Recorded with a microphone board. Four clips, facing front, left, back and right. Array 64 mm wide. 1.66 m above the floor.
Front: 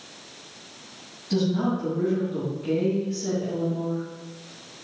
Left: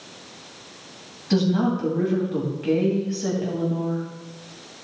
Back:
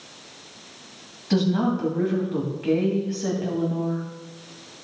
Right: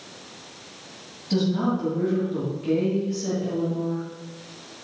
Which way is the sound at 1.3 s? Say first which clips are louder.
Left 2 dB, back 2 dB; 140° left.